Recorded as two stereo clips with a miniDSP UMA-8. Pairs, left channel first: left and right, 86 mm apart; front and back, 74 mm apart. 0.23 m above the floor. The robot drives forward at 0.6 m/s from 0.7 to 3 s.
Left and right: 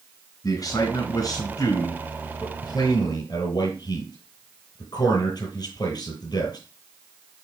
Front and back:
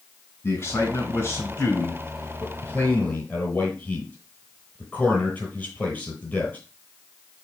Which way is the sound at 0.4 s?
50° left.